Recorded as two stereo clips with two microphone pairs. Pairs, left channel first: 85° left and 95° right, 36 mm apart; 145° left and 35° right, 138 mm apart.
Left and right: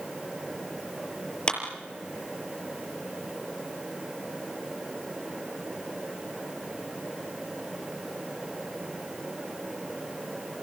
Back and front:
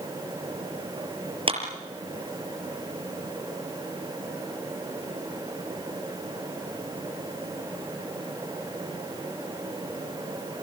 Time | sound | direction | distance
1.5 | a clap | 15° left | 6 m